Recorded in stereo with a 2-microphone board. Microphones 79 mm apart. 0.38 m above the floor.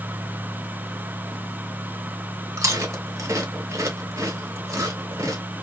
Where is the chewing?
40° right (ahead or behind), 0.9 m.